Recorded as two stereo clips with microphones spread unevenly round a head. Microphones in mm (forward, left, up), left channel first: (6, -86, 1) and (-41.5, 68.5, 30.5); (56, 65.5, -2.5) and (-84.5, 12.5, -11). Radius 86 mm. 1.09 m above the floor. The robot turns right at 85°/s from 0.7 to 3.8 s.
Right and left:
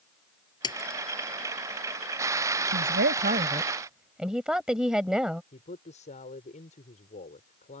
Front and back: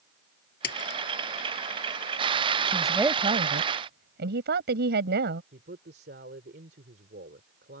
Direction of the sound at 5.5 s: 120° right.